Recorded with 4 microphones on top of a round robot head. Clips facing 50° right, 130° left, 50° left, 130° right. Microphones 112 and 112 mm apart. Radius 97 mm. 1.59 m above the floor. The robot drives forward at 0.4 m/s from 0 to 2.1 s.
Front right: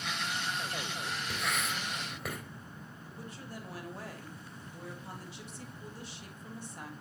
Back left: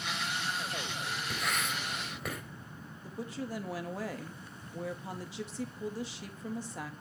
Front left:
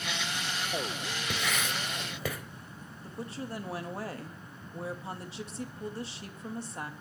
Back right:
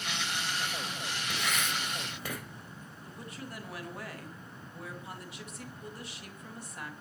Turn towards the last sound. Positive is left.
turn(degrees=115)